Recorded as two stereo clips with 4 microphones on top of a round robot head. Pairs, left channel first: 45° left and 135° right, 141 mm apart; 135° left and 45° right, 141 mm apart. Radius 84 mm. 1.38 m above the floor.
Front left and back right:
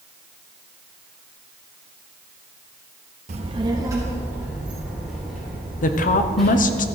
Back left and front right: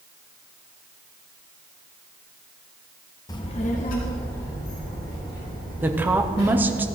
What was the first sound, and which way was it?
A child speaking, 165° right.